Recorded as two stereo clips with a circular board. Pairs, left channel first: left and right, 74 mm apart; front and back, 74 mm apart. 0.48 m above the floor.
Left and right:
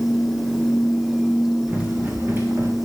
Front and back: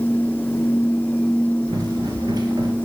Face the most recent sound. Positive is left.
turn(degrees=-145)